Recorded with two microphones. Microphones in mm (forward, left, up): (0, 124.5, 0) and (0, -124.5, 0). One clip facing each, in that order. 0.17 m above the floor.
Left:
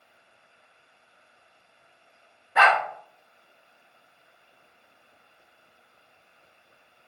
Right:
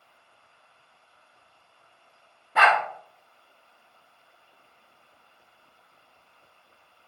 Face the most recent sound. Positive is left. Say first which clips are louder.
# even
turn(degrees=-45)  # may be behind; listen again after turning